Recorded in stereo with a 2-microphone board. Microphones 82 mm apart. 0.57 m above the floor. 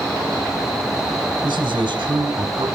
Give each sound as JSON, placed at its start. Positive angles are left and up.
{"t": 1.4, "sound": "a man speaking", "side_deg": -70, "distance_m": 1.9}